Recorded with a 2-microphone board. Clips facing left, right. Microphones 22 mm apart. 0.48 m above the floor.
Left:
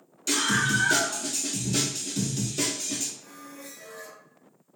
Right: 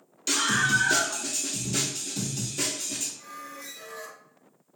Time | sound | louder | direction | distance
0.3 | a scream | right 1 dB | 20° right (ahead or behind) | 1.2 m
3.2 | a squeak | right 3 dB | 65° right (ahead or behind) | 0.6 m